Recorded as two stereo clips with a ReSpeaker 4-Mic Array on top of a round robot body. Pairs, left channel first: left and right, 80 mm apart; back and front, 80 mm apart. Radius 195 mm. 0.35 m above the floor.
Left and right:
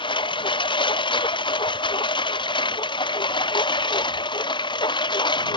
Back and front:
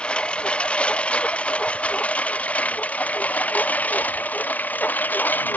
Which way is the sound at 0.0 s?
105° left.